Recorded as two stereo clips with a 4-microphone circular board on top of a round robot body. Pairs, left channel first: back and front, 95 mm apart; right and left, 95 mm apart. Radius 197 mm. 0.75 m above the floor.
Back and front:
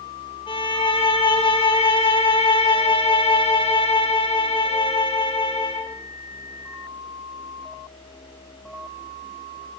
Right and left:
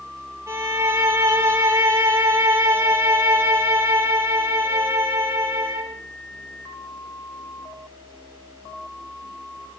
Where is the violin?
150° left, 8 m.